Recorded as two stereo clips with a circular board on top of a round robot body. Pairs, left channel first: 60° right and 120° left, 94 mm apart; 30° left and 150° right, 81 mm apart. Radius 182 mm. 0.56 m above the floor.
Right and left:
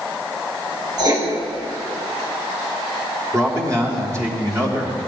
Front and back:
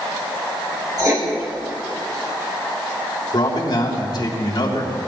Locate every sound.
1.0 s writing: 165° left, 3.5 m
3.3 s a man speaking: 65° left, 3.5 m